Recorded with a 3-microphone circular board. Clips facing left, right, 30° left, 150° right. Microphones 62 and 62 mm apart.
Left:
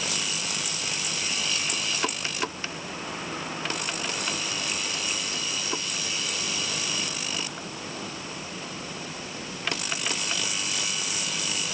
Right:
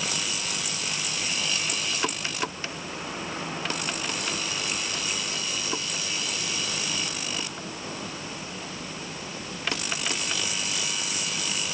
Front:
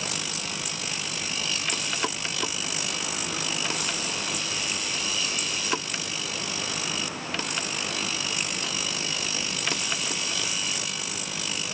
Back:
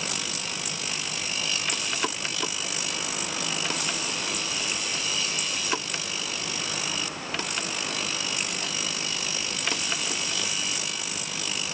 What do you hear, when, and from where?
Only background noise.